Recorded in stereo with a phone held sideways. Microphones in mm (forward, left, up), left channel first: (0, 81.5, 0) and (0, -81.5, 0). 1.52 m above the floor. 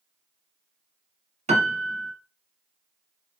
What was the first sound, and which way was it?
A piano, 45° right (ahead or behind).